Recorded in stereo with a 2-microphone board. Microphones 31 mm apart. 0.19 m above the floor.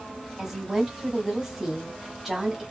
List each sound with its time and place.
0.4 s a woman speaking: 10° right (ahead or behind), 1.1 m